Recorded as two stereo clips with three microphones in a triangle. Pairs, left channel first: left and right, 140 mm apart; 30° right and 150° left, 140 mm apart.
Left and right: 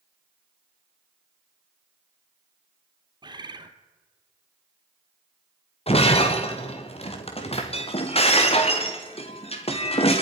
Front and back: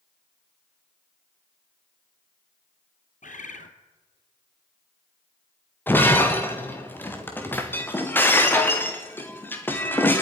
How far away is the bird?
About 1.6 m.